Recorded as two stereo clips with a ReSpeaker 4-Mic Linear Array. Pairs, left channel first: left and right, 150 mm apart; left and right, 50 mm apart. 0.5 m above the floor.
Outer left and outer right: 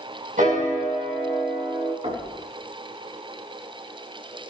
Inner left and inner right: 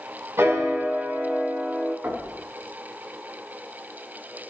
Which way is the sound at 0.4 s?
65° right (ahead or behind).